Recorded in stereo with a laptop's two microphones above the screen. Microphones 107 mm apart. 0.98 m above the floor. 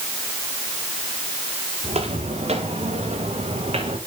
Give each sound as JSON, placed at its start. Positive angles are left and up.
{"t": 1.8, "sound": "footsteps", "side_deg": -75, "distance_m": 4.5}